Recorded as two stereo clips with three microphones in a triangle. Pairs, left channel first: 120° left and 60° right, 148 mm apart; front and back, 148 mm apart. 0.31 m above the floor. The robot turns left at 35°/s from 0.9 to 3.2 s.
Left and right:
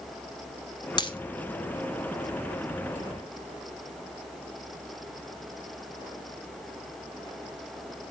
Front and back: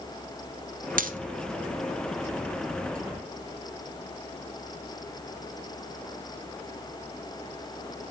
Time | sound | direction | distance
1.0 | a dropped coin | straight behind | 1.2 m